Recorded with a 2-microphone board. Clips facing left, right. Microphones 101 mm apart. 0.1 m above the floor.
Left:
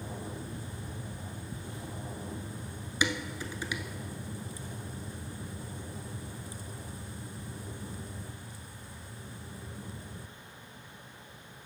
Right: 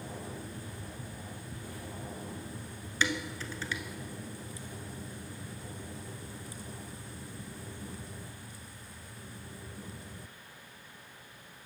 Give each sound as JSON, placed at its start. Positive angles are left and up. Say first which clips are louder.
{"t": 3.0, "sound": "dishes clattering", "louder": "left 1 dB", "side_deg": 15, "distance_m": 0.9}